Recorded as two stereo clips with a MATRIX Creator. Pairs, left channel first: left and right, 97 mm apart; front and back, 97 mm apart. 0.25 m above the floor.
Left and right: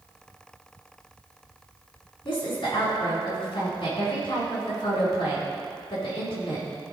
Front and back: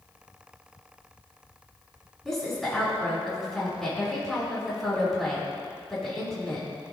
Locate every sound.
2.2 s a woman speaking: 85° left, 3 m